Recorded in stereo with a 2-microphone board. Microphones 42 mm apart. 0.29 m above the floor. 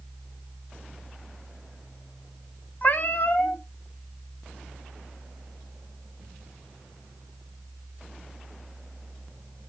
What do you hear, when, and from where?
2.8 s a cat meowing: 45° left (ahead or behind), 1.0 m